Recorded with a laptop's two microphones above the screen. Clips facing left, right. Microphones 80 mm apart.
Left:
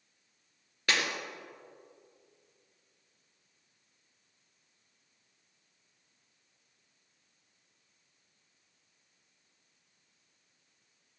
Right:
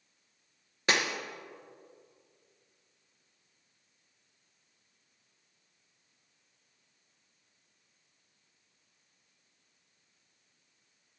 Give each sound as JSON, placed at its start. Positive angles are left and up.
{"t": 0.9, "sound": "breaking glass", "side_deg": -20, "distance_m": 2.5}